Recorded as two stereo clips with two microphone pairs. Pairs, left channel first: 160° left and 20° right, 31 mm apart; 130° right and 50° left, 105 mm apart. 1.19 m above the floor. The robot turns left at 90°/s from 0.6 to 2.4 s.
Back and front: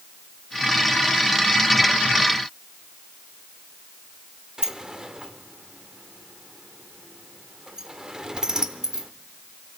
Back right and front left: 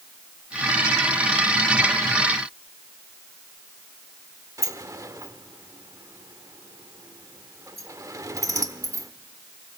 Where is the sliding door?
30° left, 0.9 m.